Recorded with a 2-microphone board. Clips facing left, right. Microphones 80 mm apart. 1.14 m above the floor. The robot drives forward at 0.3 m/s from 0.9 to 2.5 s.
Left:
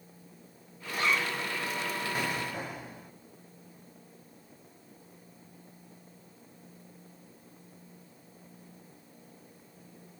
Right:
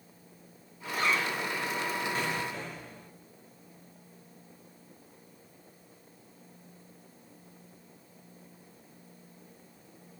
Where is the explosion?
10° left (ahead or behind), 0.7 m.